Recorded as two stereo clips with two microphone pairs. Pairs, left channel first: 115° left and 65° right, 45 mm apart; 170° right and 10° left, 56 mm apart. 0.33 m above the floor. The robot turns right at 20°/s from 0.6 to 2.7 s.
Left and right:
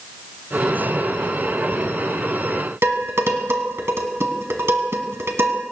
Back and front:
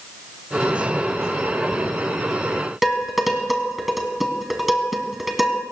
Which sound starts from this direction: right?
Dishes clattering, at 2.8 s.